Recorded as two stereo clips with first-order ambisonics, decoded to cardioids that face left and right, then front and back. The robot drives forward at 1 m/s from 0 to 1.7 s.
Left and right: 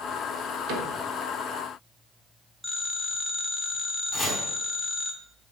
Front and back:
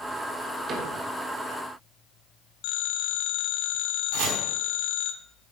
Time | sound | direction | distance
0.7 | a cupboard door | 120° right | 2.5 m
2.6 | a phone ringing | 10° right | 1.7 m
4.1 | chopping | 175° right | 4.5 m